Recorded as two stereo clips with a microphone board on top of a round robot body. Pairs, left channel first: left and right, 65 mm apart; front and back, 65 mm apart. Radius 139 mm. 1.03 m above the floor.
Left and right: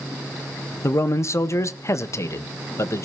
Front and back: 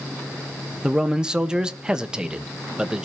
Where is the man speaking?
110° left, 1.2 m.